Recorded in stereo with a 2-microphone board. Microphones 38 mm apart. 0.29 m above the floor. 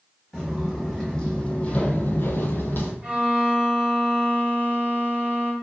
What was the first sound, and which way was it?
Footsteps, 5° left (ahead or behind).